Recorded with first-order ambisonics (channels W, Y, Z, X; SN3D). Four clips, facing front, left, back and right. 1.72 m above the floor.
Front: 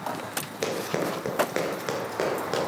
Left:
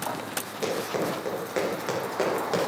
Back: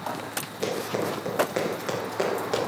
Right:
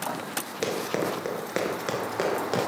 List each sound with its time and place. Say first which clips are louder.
0.6 s running footsteps: even, even; 45° right, 2.0 m; by 2.6 s 100° right, 1.6 m